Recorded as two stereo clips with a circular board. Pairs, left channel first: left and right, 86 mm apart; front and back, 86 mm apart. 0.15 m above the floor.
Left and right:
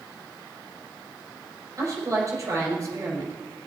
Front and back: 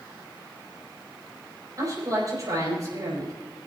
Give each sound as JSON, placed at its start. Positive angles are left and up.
{"t": 1.8, "sound": "a woman speaking", "azimuth_deg": -135, "distance_m": 5.0}